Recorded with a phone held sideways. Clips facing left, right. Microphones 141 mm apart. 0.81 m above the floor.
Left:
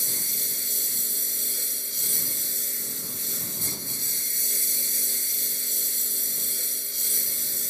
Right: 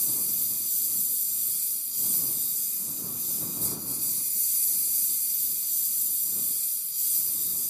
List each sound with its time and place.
0.0 s a lawn mower: 80° left